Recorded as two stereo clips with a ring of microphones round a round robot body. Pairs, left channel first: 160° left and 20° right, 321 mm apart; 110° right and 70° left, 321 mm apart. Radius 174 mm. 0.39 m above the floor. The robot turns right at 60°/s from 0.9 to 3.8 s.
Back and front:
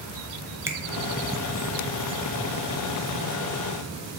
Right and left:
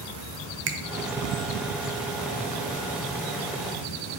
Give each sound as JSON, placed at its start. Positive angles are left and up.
{"t": 0.7, "sound": "a finger snap", "azimuth_deg": 55, "distance_m": 0.6}